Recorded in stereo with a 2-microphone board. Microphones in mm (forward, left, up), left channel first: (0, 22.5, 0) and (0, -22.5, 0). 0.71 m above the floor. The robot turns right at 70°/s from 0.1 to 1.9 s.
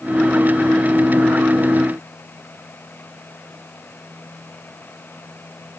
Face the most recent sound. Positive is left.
No sound to turn to.